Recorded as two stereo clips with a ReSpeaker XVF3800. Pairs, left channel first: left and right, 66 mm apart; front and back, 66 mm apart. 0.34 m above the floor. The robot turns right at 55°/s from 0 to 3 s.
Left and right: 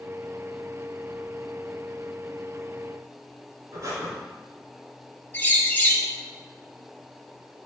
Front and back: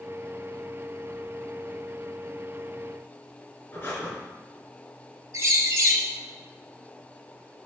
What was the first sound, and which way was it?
Breathing, 60° right.